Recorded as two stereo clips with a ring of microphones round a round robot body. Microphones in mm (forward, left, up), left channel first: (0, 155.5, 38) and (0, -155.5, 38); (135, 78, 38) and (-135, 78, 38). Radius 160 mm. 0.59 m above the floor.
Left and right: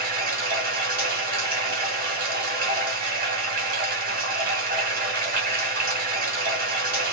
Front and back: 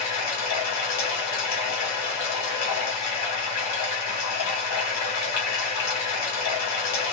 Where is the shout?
I don't hear a shout.